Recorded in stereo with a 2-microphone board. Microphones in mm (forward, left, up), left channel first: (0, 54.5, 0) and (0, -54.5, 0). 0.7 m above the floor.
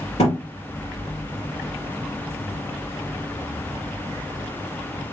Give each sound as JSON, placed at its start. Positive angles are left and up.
{"t": 0.2, "sound": "a thud", "side_deg": 75, "distance_m": 3.5}